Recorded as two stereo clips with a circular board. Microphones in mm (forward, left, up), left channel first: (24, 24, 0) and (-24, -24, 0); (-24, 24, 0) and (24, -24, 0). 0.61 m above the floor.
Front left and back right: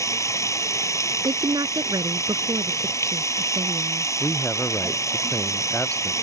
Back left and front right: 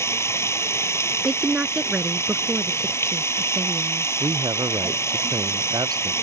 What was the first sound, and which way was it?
Running water, 85° left.